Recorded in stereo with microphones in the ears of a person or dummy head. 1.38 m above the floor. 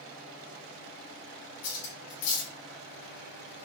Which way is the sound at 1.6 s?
70° left (ahead or behind).